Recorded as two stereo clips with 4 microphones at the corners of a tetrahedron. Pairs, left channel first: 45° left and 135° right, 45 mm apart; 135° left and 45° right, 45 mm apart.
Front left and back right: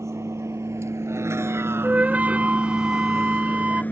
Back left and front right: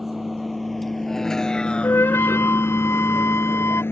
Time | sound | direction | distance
0.0 | a vehicle | 135° right | ?
1.8 | a flute | 165° left | ?